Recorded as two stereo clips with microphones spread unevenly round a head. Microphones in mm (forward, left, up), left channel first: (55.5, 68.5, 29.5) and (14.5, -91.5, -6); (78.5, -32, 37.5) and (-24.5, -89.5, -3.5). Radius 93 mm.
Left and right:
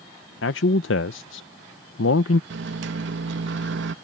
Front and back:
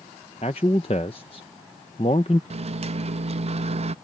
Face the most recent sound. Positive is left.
turn(degrees=-120)